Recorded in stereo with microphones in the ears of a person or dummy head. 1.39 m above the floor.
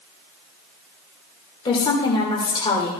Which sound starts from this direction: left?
A woman speaking, at 1.6 s.